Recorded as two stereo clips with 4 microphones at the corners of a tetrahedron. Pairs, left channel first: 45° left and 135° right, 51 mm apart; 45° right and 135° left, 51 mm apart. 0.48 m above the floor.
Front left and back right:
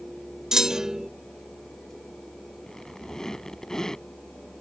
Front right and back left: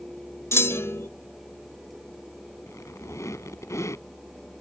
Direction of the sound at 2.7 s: 30° right.